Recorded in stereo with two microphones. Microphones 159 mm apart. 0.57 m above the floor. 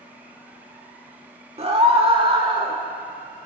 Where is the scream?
35° right (ahead or behind), 1.3 m; by 2.8 s 30° right (ahead or behind), 1.8 m.